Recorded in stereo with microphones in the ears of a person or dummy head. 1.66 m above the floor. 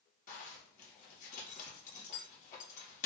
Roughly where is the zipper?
Left.